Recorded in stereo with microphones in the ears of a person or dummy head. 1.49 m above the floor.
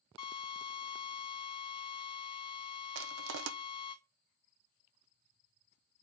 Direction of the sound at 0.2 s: 25° left (ahead or behind).